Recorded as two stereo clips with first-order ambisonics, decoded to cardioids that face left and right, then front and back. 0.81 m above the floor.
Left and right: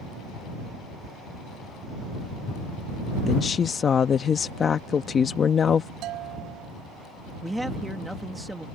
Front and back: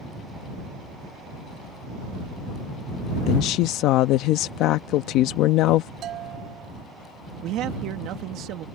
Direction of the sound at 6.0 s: 130° right.